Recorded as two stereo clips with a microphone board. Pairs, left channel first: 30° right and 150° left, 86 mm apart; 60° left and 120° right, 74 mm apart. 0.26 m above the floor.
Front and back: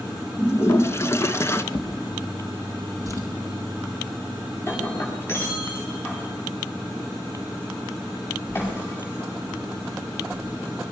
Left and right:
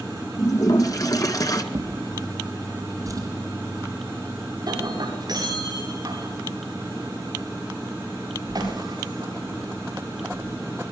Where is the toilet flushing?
25° left, 1.9 m.